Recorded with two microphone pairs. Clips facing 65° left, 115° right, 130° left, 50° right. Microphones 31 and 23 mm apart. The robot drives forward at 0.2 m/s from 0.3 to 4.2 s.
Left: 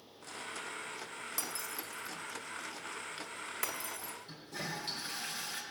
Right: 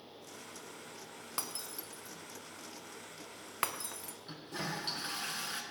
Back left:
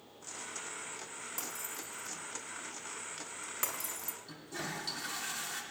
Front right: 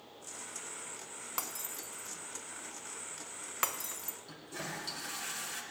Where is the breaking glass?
65° right, 1.0 m; by 4.2 s 100° right, 1.0 m.